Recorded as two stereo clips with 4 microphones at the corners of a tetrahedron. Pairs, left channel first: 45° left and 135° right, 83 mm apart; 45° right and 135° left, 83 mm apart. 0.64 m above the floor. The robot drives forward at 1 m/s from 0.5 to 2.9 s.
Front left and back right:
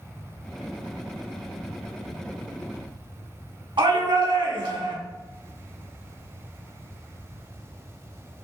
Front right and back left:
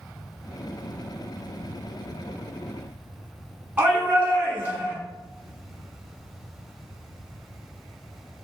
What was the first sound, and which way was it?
A shout, 155° right.